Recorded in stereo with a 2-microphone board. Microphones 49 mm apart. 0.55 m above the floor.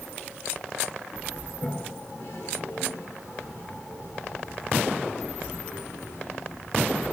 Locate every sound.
1.5 s a toilet flushing: 55° left (ahead or behind), 6.5 m